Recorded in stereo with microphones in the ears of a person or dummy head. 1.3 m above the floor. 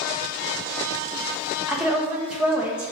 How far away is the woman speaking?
About 0.6 m.